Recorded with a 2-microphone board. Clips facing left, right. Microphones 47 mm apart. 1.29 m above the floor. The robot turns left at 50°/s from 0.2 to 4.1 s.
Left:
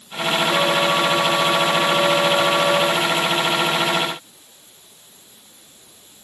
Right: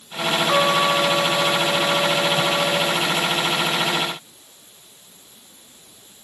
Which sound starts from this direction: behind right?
A trumpet, at 0.5 s.